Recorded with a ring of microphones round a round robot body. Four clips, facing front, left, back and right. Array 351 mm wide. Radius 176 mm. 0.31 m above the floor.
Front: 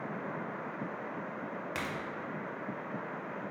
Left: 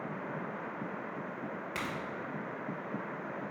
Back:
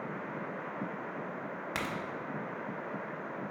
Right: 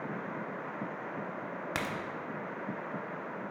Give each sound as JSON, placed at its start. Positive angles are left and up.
{"t": 1.8, "sound": "a crack", "azimuth_deg": -115, "distance_m": 0.8}